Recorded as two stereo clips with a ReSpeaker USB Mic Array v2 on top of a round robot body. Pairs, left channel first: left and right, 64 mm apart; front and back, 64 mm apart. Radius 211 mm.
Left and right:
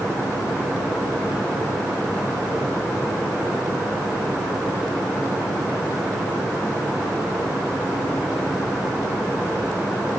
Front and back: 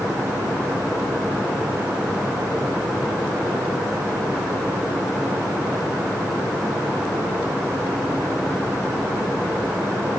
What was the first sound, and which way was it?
Only background noise.